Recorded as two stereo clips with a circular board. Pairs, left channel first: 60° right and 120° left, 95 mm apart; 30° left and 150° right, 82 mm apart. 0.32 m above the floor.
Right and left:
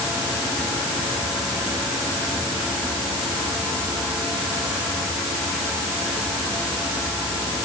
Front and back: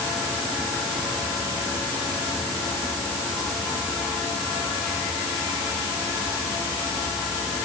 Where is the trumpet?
I don't hear a trumpet.